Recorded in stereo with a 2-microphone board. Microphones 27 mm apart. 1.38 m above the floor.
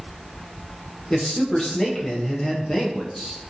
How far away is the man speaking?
About 0.6 m.